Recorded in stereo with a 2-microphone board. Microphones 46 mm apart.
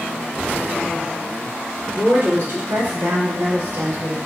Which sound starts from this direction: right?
A woman speaking, at 1.9 s.